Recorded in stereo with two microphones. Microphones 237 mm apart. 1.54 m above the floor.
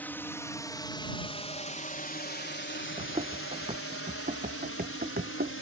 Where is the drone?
5° left (ahead or behind); by 5.6 s 65° left (ahead or behind).